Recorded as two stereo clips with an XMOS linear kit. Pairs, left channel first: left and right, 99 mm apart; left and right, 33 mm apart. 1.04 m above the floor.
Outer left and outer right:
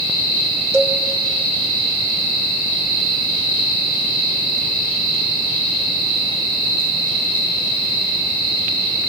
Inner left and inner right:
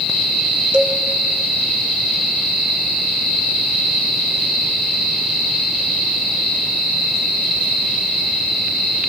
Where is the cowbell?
30° right (ahead or behind), 2.5 m.